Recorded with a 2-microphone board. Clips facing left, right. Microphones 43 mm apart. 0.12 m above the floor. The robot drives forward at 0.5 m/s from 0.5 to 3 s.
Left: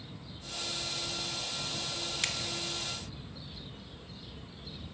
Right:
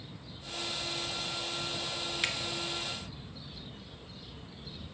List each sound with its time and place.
2.2 s a finger snap: 15° right (ahead or behind), 1.0 m